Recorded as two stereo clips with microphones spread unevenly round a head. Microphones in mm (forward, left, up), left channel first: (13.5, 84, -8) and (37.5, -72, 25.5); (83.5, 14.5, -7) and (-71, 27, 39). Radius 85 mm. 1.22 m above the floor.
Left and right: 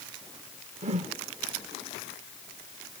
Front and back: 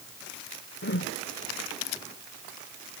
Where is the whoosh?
40° right.